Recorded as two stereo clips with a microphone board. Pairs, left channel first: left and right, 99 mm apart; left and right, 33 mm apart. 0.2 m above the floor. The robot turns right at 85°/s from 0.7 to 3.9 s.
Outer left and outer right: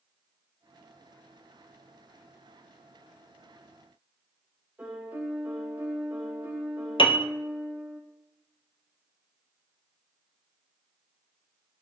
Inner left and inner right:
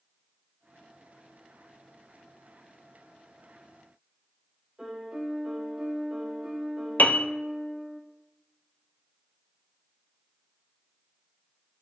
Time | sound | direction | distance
4.8 | a piano | 15° right (ahead or behind) | 3 m
7.0 | a piano | 60° left (ahead or behind) | 0.6 m